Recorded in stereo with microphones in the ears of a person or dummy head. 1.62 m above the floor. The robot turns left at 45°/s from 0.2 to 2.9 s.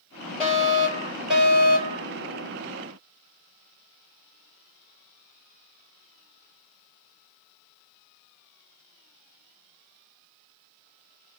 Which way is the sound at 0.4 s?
45° left.